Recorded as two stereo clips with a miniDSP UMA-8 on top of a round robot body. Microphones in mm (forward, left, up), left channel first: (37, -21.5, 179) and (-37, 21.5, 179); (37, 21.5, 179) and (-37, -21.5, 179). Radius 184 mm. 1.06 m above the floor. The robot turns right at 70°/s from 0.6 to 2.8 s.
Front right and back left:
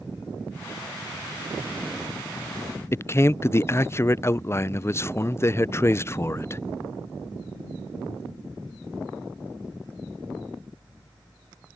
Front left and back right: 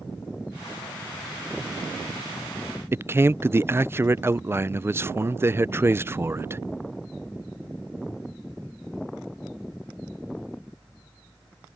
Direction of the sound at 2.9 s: 90° right.